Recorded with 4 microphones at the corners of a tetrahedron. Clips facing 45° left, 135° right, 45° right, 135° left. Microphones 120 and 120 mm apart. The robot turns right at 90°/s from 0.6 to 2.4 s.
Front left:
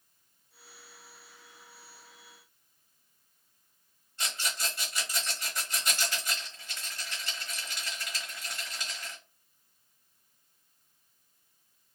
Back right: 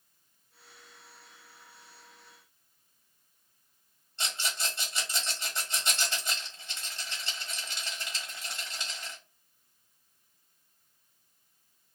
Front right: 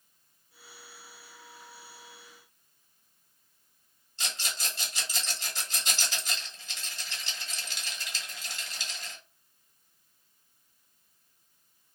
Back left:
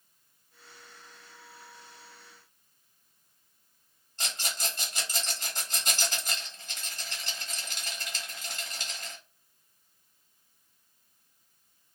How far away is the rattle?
About 1.3 m.